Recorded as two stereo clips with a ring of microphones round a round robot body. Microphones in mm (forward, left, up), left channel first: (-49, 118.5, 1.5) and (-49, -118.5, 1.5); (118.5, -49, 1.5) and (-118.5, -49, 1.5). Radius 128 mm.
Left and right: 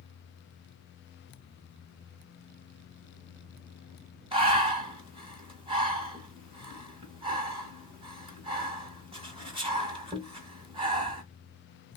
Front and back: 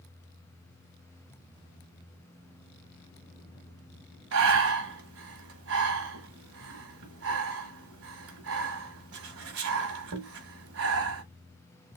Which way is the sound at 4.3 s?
155° right.